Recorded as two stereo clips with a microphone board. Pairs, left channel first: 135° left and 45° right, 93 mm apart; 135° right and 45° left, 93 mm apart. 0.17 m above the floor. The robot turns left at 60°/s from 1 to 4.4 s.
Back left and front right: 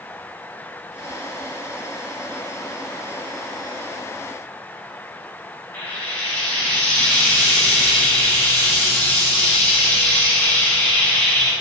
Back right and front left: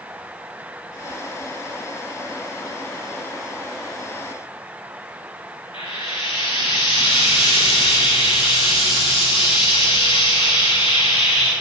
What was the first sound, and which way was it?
Frying, 155° right.